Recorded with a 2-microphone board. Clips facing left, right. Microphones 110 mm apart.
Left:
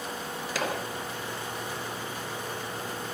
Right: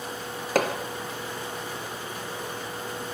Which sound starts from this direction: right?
Hammering, at 0.6 s.